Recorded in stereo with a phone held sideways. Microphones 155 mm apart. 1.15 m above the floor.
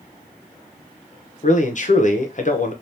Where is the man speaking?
55° left (ahead or behind), 0.7 m.